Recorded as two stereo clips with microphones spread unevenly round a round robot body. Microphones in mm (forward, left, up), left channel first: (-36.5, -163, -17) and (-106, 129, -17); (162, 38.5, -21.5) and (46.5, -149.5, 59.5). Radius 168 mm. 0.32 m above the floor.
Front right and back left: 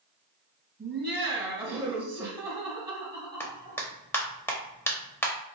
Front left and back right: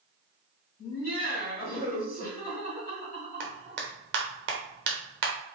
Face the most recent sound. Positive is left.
turn(degrees=-150)